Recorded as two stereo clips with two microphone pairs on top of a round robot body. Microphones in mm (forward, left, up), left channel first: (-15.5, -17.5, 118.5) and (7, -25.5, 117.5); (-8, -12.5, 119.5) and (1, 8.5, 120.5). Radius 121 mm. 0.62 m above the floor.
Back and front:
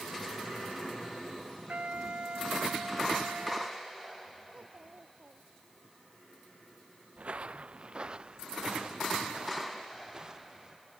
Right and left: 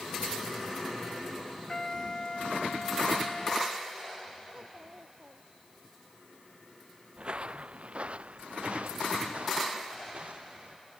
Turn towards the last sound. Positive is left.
turn(degrees=45)